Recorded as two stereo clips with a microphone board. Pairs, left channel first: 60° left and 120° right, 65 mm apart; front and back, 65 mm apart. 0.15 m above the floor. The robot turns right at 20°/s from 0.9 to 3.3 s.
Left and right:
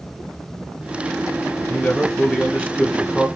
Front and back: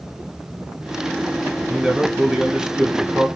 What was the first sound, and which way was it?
A man speaking, 100° left.